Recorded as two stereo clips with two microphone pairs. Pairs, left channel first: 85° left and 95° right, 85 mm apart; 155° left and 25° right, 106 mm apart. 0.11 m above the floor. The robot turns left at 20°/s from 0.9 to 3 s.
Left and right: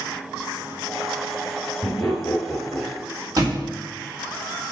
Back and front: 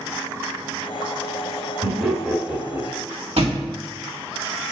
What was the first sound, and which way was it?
Laughter, 10° left.